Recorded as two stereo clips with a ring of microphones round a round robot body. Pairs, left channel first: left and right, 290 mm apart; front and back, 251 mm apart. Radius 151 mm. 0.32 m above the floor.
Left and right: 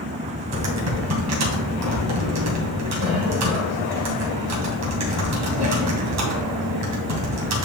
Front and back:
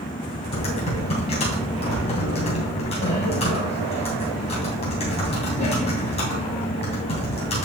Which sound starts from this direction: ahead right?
Typing on a keyboard, at 0.5 s.